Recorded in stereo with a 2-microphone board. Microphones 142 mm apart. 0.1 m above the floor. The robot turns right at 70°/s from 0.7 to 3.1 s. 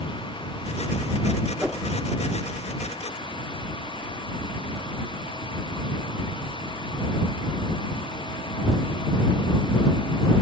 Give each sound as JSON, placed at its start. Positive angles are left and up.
{"t": 1.6, "sound": "a whoosh", "side_deg": -10}